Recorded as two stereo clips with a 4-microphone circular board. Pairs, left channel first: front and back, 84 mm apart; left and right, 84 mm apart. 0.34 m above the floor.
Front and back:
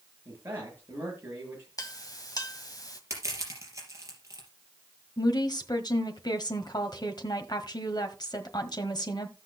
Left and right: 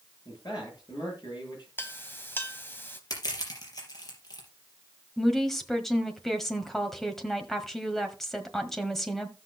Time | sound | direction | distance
0.2 | a man speaking | 120° left | 8 m
1.8 | a clink | 30° left | 1.7 m
3.1 | crushing | 130° left | 4.5 m
5.2 | a woman speaking | 5° left | 1.5 m